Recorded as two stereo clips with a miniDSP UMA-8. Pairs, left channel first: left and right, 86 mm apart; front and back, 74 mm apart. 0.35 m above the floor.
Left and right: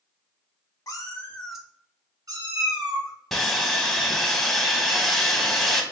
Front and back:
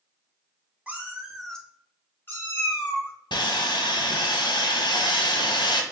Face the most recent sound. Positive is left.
turn(degrees=0)